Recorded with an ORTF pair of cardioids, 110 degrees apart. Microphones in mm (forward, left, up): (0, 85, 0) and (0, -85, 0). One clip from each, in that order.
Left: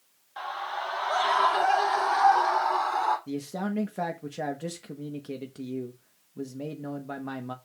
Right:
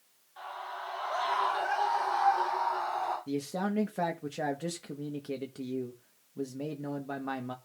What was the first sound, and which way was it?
A scream, 65° left.